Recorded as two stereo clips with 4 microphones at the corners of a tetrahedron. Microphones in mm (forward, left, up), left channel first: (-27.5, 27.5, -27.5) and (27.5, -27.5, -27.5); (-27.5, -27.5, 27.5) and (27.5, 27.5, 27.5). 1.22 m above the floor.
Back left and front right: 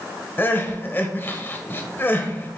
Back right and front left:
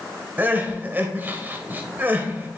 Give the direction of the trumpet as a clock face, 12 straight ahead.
No trumpet in this recording.